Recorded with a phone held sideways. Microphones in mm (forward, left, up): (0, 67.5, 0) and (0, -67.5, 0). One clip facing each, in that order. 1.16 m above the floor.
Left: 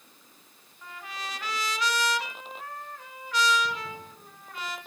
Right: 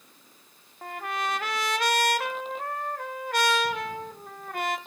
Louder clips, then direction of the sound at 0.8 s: Right 9 dB; 55° right (ahead or behind).